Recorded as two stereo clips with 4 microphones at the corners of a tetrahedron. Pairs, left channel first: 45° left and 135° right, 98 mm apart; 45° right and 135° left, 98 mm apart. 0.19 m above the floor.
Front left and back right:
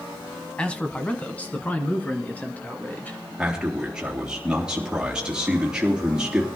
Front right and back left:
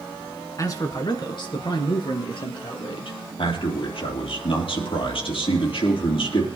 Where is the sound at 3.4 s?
55° right, 3.5 m.